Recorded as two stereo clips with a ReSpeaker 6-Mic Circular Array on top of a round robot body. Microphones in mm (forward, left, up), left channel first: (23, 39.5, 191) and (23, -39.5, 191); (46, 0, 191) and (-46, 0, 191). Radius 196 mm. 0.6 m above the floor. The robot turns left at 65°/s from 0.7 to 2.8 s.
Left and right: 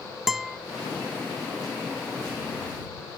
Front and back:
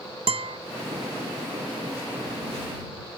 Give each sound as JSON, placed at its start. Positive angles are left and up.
{"t": 0.3, "sound": "a guitar", "azimuth_deg": 180}